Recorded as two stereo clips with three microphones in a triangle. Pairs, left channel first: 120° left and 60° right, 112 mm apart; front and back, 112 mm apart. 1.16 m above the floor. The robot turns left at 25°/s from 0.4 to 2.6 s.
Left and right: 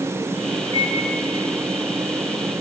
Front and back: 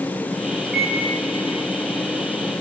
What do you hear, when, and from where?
0.6 s a microwave: 95° right, 7 m; by 1.0 s 100° right, 7 m